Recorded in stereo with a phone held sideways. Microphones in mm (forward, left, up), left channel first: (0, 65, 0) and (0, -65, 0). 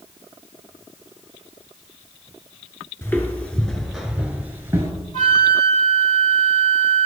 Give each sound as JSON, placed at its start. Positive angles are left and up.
{"t": 3.0, "sound": "footsteps", "side_deg": 20, "distance_m": 1.2}
{"t": 5.1, "sound": "a flute", "side_deg": 85, "distance_m": 3.5}